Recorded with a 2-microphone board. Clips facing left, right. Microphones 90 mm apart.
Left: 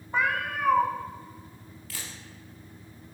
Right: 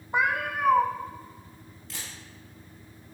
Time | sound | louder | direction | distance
0.1 | a cat meowing | right 1 dB | 15° right (ahead or behind) | 0.6 m
1.9 | a camera shutter | even | 20° right (ahead or behind) | 2.5 m